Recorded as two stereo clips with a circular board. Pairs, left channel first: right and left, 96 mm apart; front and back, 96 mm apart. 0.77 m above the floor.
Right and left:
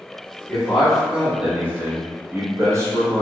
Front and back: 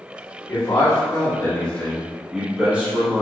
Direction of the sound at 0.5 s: Straight ahead.